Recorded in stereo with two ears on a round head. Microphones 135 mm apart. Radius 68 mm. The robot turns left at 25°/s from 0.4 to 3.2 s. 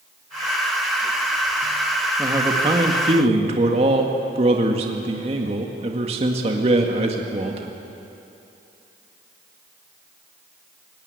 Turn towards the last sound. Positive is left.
turn(degrees=-40)  # may be behind; listen again after turning